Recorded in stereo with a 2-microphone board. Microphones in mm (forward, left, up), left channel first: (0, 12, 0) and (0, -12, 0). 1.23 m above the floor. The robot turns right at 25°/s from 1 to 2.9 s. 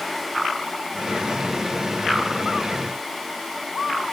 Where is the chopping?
No chopping in this recording.